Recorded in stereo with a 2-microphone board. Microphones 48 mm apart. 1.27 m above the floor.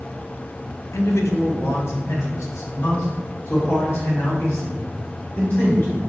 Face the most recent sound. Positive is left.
turn(degrees=60)  # may be behind; listen again after turning